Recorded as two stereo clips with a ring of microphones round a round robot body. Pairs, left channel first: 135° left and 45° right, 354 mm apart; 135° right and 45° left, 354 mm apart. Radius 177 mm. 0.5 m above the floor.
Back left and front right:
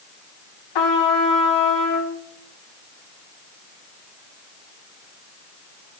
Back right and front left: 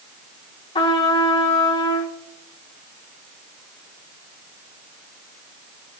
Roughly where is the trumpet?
Behind left.